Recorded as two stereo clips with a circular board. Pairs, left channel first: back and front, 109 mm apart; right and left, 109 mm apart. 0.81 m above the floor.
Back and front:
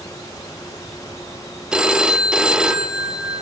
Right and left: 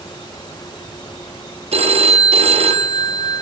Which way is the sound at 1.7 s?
80° left.